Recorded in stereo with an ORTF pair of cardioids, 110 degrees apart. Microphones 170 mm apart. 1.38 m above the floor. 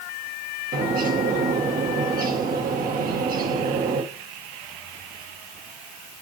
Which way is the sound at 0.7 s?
60° right.